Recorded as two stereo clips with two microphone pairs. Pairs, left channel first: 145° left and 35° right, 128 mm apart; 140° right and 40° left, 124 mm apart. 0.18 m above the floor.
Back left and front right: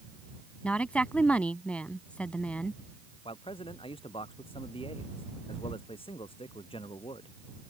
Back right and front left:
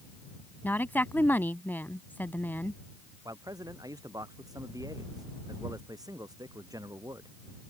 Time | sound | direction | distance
0.6 | a woman speaking | 160° right | ?
3.2 | a man speaking | 100° left | ?